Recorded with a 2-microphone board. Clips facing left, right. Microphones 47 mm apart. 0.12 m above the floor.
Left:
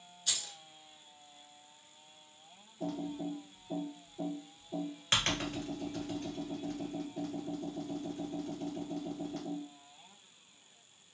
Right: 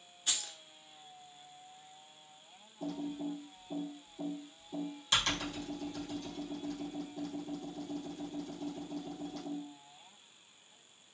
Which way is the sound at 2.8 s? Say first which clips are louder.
Left 1 dB; 40° left (ahead or behind).